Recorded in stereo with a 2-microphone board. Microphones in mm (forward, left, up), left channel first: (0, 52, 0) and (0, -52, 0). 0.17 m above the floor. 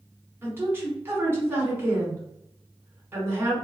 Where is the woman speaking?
20° right (ahead or behind), 1.3 m.